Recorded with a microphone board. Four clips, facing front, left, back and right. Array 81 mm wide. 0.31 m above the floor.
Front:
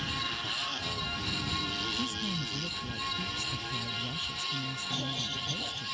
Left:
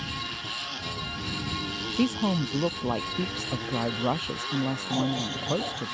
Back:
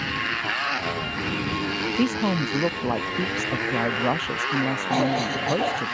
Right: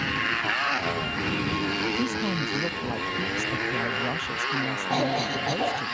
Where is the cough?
145° right.